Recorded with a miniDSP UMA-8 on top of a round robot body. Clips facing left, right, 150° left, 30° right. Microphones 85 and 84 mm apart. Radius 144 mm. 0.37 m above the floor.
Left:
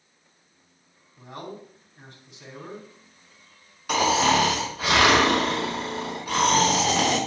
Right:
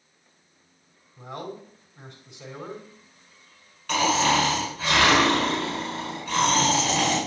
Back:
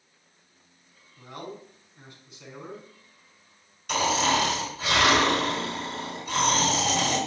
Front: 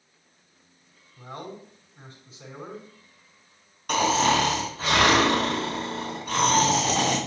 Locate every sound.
1.2 s a man speaking: 80° right, 5.5 m
3.9 s snoring: 15° left, 5 m